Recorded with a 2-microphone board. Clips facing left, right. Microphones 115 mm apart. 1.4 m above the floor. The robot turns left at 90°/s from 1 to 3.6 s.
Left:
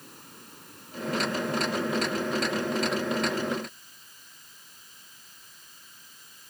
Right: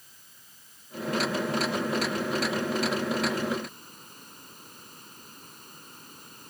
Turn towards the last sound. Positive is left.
turn(degrees=-125)